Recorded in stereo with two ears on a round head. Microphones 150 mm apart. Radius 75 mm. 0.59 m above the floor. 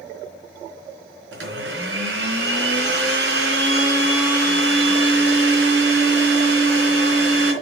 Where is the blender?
80° right, 4 m.